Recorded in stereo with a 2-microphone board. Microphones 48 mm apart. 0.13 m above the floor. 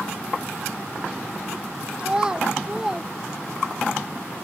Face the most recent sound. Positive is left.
turn(degrees=-5)  # may be behind; listen again after turning